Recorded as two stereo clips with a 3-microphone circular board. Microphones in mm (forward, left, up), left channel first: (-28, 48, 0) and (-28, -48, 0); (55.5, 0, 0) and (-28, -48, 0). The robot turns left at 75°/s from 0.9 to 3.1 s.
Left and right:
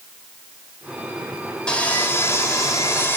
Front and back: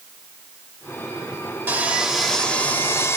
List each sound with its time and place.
1.7 s sawing: 160° left, 1.6 m; by 3.2 s 55° left, 1.6 m